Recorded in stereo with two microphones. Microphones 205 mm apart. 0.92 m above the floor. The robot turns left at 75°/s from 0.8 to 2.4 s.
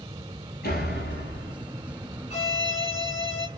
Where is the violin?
35° left (ahead or behind), 2.5 m; by 3.5 s 30° left (ahead or behind), 2.5 m.